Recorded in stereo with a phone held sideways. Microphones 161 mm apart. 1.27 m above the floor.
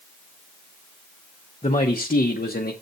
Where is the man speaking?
45° left (ahead or behind), 1.0 m; by 2.7 s 80° left, 0.8 m.